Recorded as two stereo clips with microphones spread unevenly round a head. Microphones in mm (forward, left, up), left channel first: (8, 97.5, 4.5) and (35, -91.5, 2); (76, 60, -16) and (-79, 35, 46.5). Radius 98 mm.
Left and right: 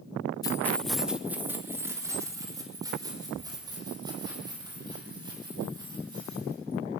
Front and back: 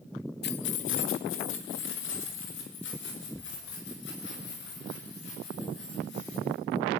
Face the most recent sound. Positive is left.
turn(degrees=-15)